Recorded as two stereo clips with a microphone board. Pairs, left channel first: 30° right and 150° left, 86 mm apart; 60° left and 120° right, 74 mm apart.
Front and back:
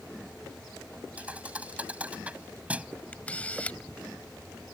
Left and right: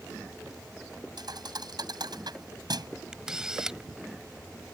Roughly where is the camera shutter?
Ahead right.